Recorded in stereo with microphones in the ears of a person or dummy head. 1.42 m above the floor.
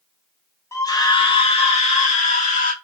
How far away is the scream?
About 1.7 m.